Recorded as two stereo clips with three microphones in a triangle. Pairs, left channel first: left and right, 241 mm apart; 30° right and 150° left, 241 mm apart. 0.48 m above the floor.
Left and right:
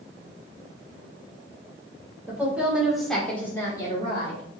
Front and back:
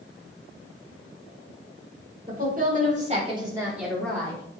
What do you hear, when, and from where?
2.3 s a woman speaking: 170° right, 1.9 m; by 4.4 s 40° left, 1.4 m